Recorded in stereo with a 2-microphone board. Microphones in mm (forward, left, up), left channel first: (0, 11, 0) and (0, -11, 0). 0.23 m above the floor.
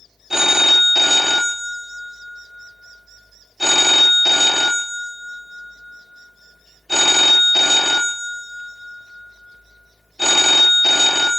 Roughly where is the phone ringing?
Centre.